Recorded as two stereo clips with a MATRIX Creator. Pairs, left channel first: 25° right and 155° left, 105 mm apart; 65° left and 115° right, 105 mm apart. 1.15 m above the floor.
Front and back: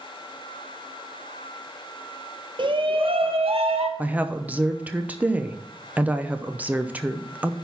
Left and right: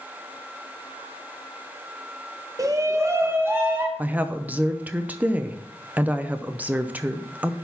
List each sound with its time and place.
2.6 s a shout: 165° right, 0.9 m; by 3.9 s straight behind, 1.7 m
4.0 s a woman speaking: 155° right, 0.6 m